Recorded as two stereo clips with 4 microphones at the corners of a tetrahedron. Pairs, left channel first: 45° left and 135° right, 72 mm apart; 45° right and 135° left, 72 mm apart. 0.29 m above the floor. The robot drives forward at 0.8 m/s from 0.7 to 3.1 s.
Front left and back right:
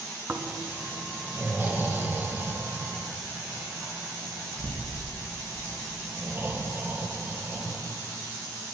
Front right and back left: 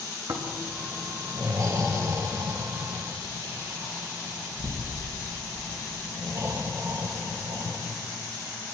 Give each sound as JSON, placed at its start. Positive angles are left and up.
{"t": 0.3, "sound": "snoring", "azimuth_deg": 165, "distance_m": 1.8}